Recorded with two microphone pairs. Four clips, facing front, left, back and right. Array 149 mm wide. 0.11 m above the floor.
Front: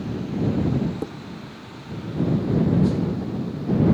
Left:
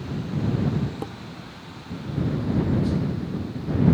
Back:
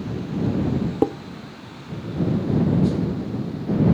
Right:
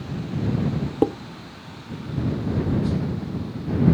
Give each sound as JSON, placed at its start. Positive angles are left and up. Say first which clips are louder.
{"t": 1.0, "sound": "dishes clattering", "louder": "right 14 dB, back 11 dB", "azimuth_deg": -135}